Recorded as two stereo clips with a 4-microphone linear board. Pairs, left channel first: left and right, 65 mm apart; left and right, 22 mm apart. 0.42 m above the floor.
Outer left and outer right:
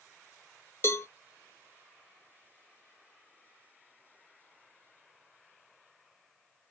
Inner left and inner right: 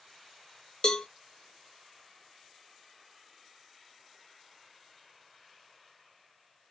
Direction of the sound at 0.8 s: 40° left (ahead or behind).